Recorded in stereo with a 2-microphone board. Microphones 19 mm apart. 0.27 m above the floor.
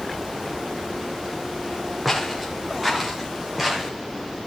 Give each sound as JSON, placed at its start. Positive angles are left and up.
{"t": 2.0, "sound": "footsteps", "side_deg": -5, "distance_m": 4.0}